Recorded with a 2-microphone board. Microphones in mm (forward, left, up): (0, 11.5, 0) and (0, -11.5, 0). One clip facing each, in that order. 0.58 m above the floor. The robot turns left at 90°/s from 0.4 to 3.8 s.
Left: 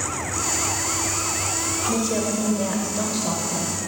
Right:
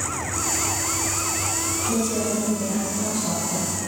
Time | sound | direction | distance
1.9 | a woman speaking | 170° left | 1.9 m